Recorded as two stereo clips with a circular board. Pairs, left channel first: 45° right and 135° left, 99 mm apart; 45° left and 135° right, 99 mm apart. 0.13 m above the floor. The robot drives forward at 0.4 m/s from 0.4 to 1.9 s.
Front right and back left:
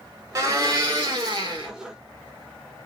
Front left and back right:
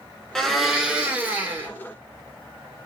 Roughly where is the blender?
Behind left.